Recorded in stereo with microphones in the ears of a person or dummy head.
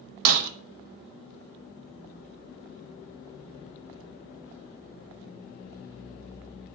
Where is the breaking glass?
60° right (ahead or behind), 0.7 m.